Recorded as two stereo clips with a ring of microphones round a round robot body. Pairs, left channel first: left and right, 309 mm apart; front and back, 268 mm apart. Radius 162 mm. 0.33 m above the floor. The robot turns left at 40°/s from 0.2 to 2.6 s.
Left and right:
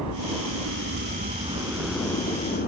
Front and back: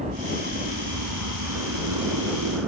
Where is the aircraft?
115° right; by 2.7 s 155° left.